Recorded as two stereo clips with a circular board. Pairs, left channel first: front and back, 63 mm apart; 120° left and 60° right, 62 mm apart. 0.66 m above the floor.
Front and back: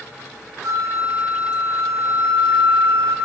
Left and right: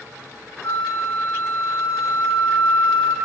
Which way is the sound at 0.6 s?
150° left.